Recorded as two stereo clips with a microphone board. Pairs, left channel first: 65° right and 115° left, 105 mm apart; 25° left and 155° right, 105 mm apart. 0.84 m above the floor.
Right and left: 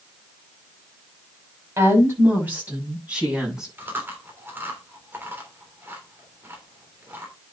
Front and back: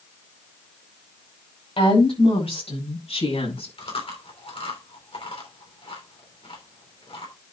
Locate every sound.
1.8 s a woman speaking: 50° left, 5.5 m; by 3.7 s 30° left, 7.5 m
3.8 s chewing: 45° left, 3 m